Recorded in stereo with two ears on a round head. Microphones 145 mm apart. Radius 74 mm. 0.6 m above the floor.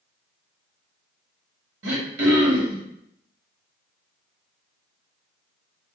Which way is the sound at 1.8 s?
90° right.